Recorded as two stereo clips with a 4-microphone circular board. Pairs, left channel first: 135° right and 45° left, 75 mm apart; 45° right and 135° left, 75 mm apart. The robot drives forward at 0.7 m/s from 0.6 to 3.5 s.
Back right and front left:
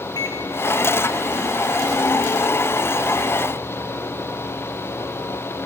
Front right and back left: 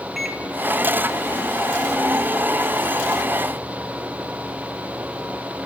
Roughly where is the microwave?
Behind right.